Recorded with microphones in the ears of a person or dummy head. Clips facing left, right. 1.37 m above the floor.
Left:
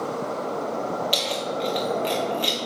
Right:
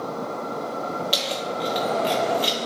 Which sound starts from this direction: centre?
Keys jangling, at 1.1 s.